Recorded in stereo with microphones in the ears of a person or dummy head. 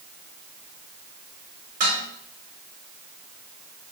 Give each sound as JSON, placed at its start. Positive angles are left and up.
{"t": 1.8, "sound": "dishes clattering", "side_deg": -50, "distance_m": 2.5}